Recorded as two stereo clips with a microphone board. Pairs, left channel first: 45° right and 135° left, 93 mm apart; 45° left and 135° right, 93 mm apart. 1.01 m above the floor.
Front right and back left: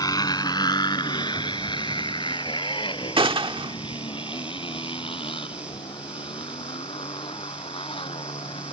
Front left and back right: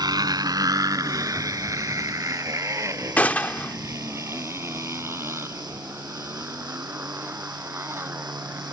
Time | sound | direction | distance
0.0 | a motorcycle | 90° right | ?
3.2 | a gunshot | 115° left | ?